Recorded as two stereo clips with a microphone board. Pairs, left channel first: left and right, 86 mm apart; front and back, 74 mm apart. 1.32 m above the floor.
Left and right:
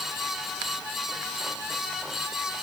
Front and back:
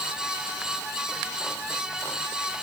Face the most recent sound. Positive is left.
No sound to turn to.